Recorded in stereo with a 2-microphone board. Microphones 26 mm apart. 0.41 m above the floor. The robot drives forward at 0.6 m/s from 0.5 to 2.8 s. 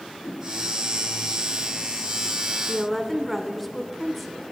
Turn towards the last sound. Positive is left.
turn(degrees=0)  # may be behind; listen again after turning